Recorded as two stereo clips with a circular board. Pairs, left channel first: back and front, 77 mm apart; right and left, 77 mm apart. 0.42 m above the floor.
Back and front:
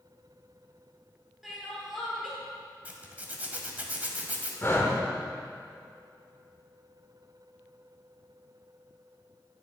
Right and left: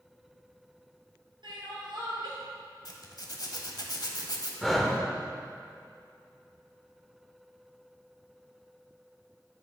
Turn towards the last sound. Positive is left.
turn(degrees=180)